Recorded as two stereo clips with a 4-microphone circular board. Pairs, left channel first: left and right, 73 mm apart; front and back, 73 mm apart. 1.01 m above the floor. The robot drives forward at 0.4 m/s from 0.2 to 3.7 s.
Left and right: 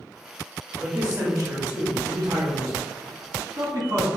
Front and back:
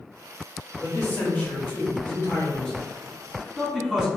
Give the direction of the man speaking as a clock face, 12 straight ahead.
2 o'clock.